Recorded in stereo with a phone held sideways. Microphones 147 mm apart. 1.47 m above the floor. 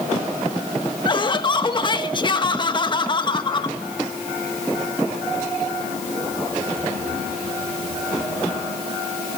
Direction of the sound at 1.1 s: 30° left (ahead or behind).